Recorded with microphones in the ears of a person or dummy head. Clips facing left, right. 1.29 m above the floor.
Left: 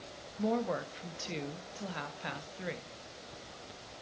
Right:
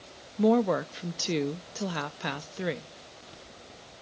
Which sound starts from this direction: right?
A woman speaking, at 0.4 s.